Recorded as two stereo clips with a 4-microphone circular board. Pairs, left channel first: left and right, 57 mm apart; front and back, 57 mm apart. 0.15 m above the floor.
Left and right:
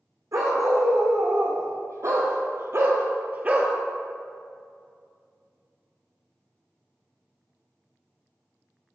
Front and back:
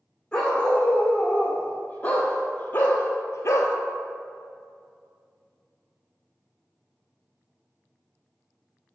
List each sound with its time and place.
0.3 s a dog barking: 75° right, 2 m; by 3.8 s 20° right, 0.7 m